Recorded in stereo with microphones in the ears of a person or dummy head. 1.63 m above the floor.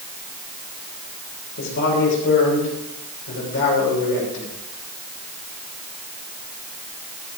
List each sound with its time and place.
1.6 s a man speaking: 55° left (ahead or behind), 6 m